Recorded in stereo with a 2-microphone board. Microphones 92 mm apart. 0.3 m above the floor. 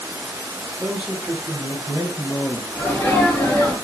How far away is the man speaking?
About 0.9 m.